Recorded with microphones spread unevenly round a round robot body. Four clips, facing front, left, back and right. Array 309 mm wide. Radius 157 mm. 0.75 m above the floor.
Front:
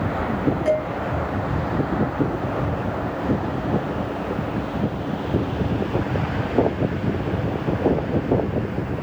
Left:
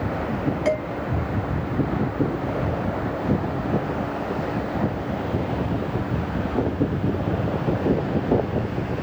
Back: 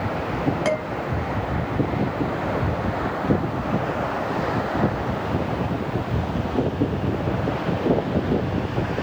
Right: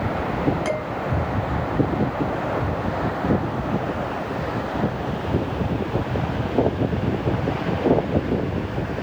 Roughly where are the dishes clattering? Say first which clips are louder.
Left 2 dB, front 5 dB; behind.